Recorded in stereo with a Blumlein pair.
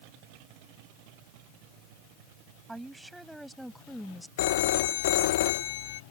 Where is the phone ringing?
55° left.